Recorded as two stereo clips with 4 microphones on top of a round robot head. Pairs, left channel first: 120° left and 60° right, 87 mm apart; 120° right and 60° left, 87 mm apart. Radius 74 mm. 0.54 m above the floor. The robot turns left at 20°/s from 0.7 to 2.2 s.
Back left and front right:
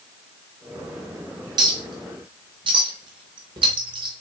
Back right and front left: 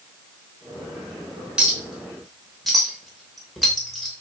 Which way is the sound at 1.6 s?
20° right.